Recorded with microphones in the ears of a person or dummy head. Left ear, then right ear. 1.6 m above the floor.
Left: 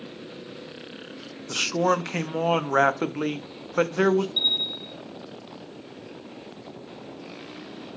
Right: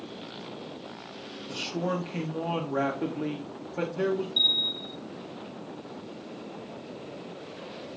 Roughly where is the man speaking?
Left.